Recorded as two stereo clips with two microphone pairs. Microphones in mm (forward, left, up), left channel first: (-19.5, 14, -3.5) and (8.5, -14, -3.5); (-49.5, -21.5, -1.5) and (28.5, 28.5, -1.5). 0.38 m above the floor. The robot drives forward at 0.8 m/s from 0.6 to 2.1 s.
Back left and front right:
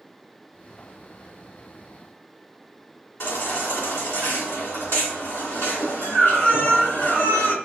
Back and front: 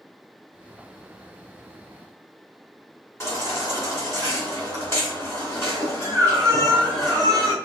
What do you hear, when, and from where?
3.2 s a baby crying: 150° left, 1.7 m